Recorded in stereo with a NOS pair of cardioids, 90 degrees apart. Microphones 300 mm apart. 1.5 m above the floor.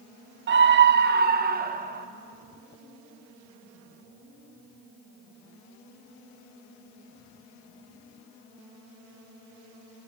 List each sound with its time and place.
0.5 s a scream: 40° right, 0.7 m; by 2.1 s 30° right, 1.6 m